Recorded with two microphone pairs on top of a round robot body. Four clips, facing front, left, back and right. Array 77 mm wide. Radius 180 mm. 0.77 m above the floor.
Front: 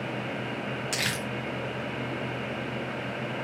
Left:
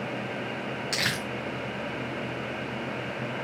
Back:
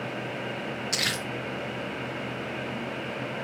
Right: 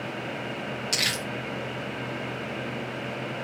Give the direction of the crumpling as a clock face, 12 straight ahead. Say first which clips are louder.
Left 2 dB, back 1 dB; 9 o'clock.